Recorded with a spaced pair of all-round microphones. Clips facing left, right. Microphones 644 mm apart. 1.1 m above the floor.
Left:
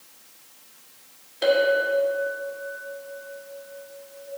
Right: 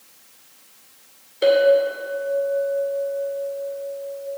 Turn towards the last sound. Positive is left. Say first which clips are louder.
# right 5 dB
turn(degrees=25)  # may be behind; listen again after turning